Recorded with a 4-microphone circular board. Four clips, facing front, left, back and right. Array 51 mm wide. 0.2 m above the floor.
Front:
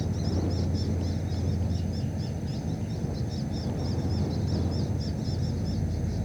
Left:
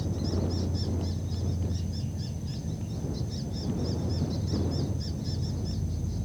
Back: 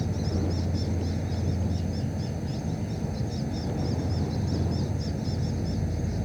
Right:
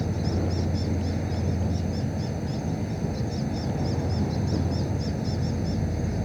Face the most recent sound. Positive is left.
turn(degrees=-105)